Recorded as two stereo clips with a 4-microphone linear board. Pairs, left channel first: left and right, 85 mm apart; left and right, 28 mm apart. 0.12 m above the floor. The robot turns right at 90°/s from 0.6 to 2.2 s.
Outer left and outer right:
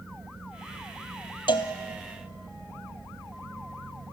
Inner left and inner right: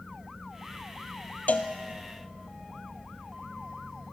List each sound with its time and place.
1.5 s a cowbell: 70° left (ahead or behind), 0.7 m; by 1.7 s 75° left (ahead or behind), 0.7 m